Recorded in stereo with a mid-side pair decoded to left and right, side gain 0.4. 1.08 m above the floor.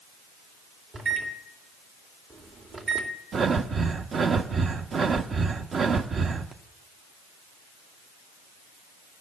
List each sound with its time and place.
0.9 s a microwave: 50° right, 2.5 m
3.3 s breathing: 55° right, 1.0 m